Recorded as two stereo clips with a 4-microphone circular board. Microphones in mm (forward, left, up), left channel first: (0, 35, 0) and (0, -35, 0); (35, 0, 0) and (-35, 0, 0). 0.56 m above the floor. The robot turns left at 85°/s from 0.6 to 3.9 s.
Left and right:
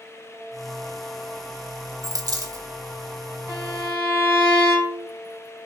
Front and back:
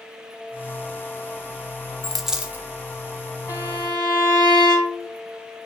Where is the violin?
125° right, 2 m; by 5.1 s 160° right, 2 m.